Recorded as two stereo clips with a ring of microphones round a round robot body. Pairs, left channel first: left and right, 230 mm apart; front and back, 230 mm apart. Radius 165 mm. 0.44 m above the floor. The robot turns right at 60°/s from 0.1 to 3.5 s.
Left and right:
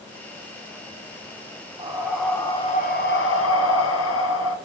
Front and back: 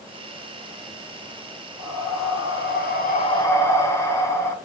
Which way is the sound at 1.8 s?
20° right.